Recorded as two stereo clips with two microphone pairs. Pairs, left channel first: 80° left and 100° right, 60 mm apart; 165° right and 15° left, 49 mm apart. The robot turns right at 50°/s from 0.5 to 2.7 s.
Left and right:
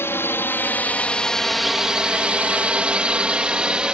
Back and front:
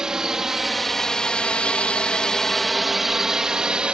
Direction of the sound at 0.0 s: 85° left.